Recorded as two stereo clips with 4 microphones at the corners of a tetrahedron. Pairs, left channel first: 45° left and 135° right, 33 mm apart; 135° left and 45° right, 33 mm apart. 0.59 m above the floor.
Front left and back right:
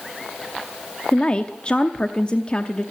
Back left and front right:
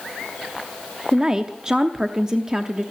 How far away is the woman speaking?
About 0.7 m.